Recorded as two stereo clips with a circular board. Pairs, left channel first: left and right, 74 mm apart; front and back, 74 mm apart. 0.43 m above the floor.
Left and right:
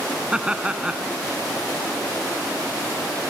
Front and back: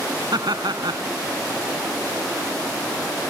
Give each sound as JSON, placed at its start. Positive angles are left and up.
{"t": 0.3, "sound": "laughter", "azimuth_deg": -170}